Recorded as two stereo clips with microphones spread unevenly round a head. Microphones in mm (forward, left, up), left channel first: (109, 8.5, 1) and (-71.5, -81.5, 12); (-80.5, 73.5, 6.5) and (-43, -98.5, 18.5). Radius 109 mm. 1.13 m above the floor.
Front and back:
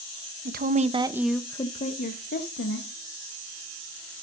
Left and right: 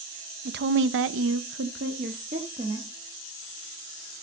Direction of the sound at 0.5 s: 110° right.